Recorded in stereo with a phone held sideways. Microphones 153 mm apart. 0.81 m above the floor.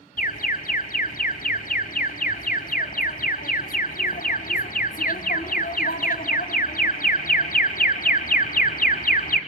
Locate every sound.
0.2 s an alarm: 60° left (ahead or behind), 1.8 m